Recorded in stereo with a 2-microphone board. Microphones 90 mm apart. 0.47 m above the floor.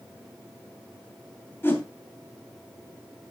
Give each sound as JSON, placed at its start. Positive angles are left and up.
{"t": 1.6, "sound": "a whoosh", "side_deg": 30, "distance_m": 2.5}